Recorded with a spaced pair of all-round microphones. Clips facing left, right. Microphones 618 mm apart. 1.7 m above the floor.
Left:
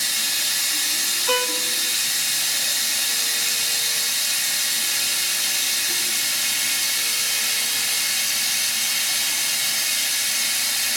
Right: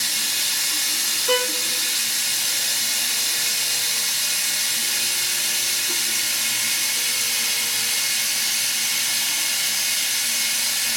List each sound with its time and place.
0.0 s running water: 10° left (ahead or behind), 2 m
1.3 s a violin: 20° left (ahead or behind), 0.7 m